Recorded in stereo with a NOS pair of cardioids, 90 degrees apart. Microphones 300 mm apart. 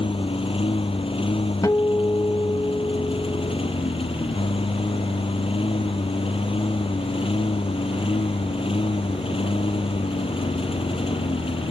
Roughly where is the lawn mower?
Ahead.